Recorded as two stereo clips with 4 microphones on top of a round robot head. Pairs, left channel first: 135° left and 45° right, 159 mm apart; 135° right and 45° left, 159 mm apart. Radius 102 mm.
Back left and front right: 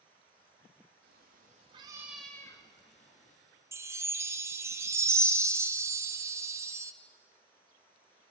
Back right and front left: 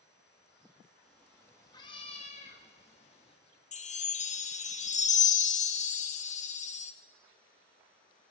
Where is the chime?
115° right, 0.7 m.